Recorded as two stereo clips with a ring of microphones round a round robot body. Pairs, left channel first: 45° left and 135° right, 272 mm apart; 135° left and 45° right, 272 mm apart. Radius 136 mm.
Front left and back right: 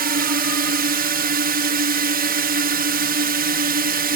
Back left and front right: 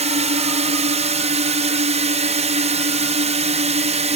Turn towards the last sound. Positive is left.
turn(degrees=-100)